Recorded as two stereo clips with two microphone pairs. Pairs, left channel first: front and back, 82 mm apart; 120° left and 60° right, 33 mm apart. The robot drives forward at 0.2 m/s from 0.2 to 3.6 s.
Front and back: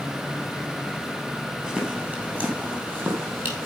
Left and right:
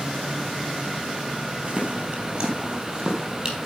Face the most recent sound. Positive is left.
turn(degrees=-125)